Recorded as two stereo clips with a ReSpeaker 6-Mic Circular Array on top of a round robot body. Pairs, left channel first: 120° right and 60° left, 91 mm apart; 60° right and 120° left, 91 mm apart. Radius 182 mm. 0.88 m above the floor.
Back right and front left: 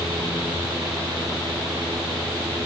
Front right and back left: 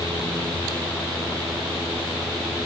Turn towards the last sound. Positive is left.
No sound to turn to.